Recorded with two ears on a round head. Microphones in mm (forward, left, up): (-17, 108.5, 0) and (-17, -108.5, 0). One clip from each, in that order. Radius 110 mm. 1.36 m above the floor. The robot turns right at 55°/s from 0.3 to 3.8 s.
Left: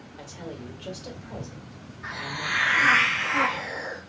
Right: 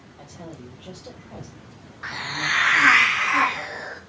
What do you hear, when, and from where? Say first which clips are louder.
0.2 s a woman speaking: left 2 dB; 115° left, 1.9 m; by 3.0 s 95° right, 1.9 m
2.0 s a hiss: right 5 dB; 110° right, 0.8 m; by 4.0 s 15° right, 0.8 m